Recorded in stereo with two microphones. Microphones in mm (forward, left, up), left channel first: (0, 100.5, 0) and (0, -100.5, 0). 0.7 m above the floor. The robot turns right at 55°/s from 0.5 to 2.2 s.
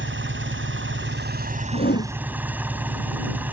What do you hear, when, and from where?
0.0 s an engine running: 100° right; by 3.5 s 10° right
1.7 s a whoosh: 45° left (ahead or behind); by 2.1 s 70° left (ahead or behind)